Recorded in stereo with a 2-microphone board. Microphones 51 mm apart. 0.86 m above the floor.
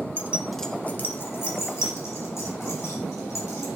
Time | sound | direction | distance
0.2 | keys jangling | 35° right (ahead or behind) | 0.7 m